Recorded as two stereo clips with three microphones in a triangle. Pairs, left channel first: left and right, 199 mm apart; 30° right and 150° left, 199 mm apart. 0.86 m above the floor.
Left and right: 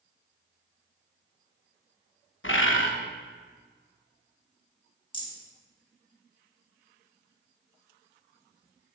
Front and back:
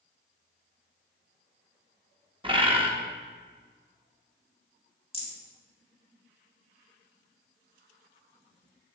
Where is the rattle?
25° left, 1.7 m.